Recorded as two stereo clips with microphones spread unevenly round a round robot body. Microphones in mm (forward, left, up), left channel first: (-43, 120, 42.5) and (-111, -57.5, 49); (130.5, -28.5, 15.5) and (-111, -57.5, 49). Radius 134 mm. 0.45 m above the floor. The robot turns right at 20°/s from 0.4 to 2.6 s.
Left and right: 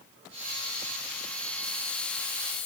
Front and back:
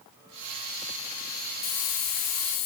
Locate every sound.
1.6 s a hiss: straight ahead, 0.9 m; by 2.7 s 20° left, 0.9 m